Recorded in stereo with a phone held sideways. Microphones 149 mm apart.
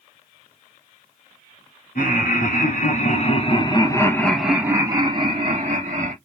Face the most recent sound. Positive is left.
turn(degrees=-55)  # may be behind; listen again after turning